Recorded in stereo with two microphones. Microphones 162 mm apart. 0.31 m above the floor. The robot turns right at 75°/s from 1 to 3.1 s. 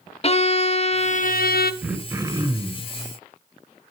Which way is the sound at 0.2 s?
40° left.